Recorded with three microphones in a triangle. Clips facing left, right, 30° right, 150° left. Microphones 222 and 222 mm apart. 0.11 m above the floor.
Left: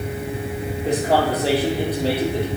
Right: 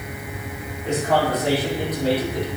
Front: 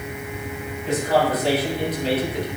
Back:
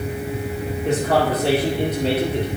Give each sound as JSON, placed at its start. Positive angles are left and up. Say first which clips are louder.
{"t": 0.8, "sound": "a man speaking", "louder": "left 1 dB, back 1 dB", "azimuth_deg": 140, "distance_m": 4.5}